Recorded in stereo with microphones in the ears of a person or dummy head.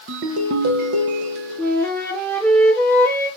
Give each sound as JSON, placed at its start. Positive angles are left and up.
{"t": 0.1, "sound": "a ringtone", "side_deg": -50, "distance_m": 0.7}
{"t": 1.6, "sound": "a flute", "side_deg": 0, "distance_m": 4.0}